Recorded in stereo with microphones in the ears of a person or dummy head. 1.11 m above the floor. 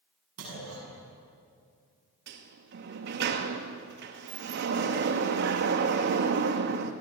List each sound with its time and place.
0.4 s a clunk: 90° right, 8 m
2.3 s a sliding door: 55° right (ahead or behind), 1.3 m